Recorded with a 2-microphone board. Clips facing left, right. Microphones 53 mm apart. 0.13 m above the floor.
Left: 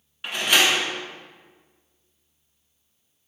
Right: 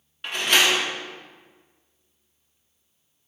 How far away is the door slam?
About 0.8 m.